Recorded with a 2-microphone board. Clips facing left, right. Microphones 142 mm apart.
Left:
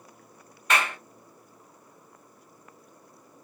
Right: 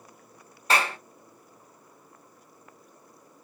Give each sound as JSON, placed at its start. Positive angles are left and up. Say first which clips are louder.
{"t": 0.7, "sound": "a clap", "louder": "right 1 dB", "side_deg": -35, "distance_m": 0.6}